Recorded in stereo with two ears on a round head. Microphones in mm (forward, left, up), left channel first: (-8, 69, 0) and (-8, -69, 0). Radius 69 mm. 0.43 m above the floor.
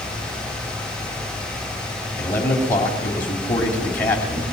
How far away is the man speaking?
About 3 m.